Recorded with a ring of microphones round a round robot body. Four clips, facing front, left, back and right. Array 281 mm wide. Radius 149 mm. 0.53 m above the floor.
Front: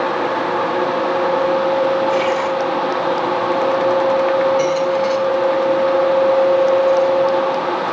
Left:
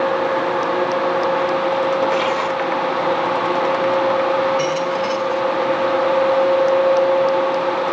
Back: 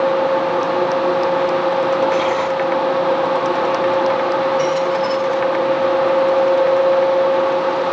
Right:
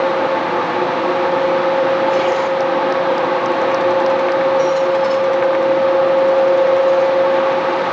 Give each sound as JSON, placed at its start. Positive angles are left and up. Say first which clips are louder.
{"t": 2.1, "sound": "tearing paper", "louder": "right 4 dB, even", "azimuth_deg": -15, "distance_m": 8.0}
{"t": 4.6, "sound": "a squeak", "louder": "right 5 dB, front 1 dB", "azimuth_deg": 50, "distance_m": 2.5}